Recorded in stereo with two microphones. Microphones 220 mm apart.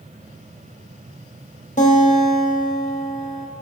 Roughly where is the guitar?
Left.